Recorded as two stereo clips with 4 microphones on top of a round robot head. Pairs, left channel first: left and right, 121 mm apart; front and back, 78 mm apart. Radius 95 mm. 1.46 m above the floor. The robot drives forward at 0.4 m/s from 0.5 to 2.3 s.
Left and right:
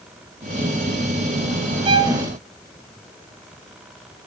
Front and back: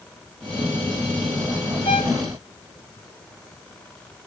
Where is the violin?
50° right, 1.3 m; by 2.2 s 55° right, 1.3 m.